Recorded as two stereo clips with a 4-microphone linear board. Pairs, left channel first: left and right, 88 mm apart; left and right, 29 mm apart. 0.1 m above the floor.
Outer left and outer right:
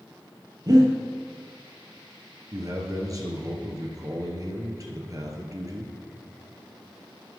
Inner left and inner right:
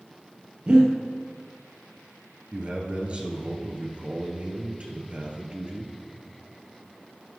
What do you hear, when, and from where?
0.7 s breathing: 45° right (ahead or behind), 2.5 m
2.5 s a man speaking: 40° right (ahead or behind), 1.8 m